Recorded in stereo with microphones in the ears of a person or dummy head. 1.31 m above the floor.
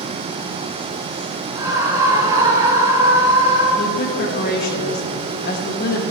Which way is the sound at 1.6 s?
20° right (ahead or behind).